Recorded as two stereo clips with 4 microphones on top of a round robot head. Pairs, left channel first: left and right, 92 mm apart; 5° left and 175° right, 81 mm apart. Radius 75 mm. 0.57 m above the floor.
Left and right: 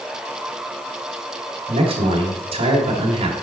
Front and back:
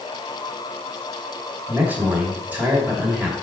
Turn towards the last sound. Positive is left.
turn(degrees=-100)